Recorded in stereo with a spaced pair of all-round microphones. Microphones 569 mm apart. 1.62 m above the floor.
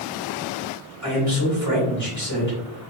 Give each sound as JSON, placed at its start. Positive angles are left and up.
{"t": 1.0, "sound": "a man speaking", "side_deg": 30, "distance_m": 1.6}